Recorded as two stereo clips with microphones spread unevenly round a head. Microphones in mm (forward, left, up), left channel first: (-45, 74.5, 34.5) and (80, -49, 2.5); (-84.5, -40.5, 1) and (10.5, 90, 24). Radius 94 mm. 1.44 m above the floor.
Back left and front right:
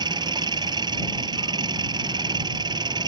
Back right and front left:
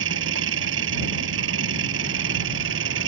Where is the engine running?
20° left.